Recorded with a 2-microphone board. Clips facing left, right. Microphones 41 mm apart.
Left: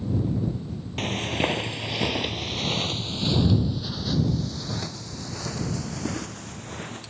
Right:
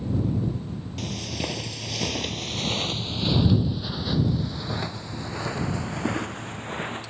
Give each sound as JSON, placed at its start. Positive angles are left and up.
{"t": 1.0, "sound": "footsteps", "side_deg": 50}